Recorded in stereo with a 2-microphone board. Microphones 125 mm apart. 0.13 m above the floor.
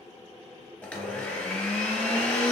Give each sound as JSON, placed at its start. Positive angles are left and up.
{"t": 0.8, "sound": "a blender", "side_deg": 10, "distance_m": 0.7}